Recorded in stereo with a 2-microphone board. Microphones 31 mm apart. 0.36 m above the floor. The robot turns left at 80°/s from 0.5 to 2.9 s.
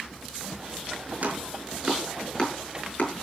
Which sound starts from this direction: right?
Chopping, at 1.2 s.